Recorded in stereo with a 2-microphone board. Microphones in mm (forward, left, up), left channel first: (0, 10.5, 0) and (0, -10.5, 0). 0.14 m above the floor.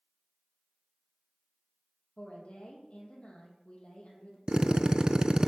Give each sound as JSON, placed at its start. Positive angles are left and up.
{"t": 2.2, "sound": "a woman speaking", "side_deg": 55, "distance_m": 4.0}
{"t": 4.5, "sound": "a drill", "side_deg": -40, "distance_m": 0.5}